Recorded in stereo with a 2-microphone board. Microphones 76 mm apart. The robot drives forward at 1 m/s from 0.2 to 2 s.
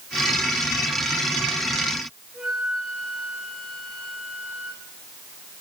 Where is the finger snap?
No finger snap in this recording.